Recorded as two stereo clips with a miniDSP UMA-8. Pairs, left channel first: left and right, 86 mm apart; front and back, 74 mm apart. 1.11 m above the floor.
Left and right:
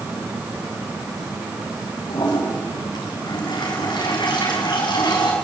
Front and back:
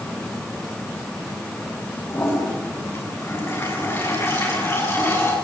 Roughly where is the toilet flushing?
Ahead left.